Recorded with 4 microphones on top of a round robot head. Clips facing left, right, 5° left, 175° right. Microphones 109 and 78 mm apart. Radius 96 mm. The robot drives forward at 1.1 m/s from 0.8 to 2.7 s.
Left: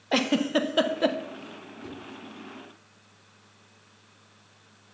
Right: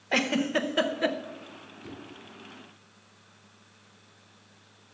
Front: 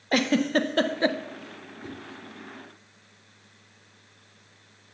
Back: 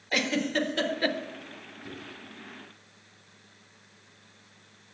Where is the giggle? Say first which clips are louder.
Left 3 dB, front 5 dB; 25° left, 0.7 m; by 1.2 s 65° left, 0.6 m.